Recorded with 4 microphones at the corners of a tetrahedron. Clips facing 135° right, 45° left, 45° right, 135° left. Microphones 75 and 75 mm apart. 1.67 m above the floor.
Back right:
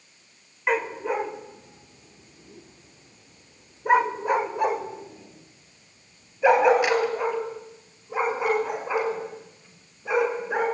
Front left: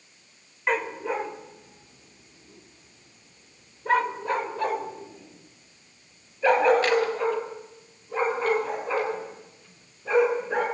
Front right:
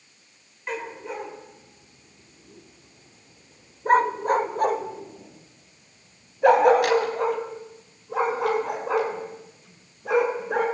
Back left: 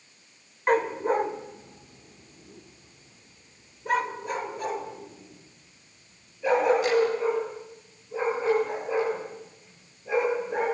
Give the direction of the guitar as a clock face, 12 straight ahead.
I don't hear a guitar.